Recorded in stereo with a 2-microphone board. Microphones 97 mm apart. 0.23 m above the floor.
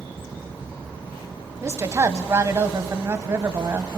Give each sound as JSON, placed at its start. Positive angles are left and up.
{"t": 1.6, "sound": "a woman speaking", "side_deg": -30, "distance_m": 1.2}